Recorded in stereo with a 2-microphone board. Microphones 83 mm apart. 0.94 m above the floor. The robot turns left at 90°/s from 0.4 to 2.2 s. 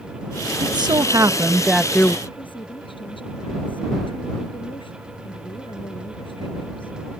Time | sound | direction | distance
0.6 | a woman speaking | 75° right | ?
2.3 | a woman speaking | 85° left | ?